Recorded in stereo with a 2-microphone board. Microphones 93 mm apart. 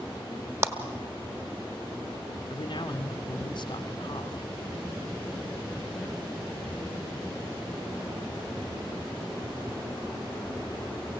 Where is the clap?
25° right (ahead or behind), 1.5 m.